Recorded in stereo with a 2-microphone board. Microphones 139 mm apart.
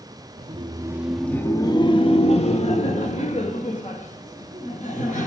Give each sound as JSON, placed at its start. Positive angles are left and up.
{"t": 0.4, "sound": "laughter", "side_deg": -45, "distance_m": 0.8}